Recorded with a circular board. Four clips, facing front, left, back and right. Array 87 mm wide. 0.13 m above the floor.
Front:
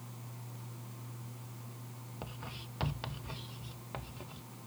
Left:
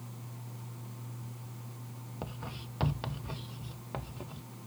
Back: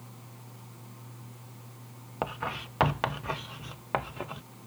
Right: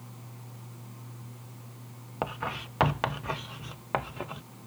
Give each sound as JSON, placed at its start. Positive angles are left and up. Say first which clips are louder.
{"t": 2.2, "sound": "writing", "louder": "right 11 dB, back 15 dB", "azimuth_deg": -140}